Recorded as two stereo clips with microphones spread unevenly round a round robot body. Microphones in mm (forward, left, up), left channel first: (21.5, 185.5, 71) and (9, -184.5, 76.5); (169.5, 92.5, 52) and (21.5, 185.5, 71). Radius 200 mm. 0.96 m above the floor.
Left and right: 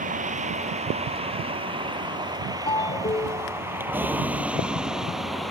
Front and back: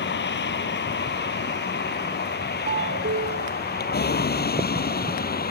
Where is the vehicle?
20° right; by 5.5 s straight ahead.